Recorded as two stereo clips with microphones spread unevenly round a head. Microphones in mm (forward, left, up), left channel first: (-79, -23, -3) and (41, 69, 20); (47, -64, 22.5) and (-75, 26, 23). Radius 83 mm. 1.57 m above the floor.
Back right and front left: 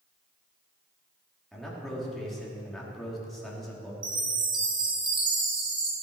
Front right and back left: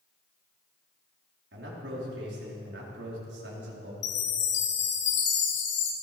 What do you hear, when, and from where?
1.5 s a man speaking: 130° left, 4 m
4.0 s a chime: 30° right, 2.5 m